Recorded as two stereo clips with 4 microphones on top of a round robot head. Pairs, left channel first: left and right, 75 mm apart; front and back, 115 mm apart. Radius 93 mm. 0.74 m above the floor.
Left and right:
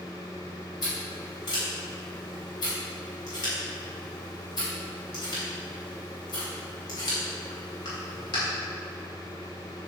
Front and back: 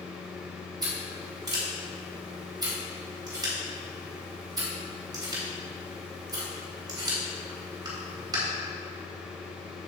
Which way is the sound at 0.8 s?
125° left.